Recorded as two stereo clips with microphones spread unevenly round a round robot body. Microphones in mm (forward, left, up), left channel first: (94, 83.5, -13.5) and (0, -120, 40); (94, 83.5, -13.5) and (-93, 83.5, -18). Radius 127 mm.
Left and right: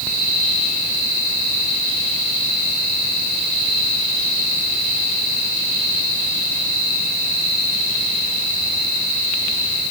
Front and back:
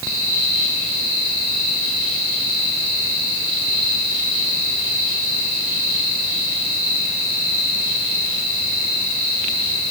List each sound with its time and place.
Only background noise.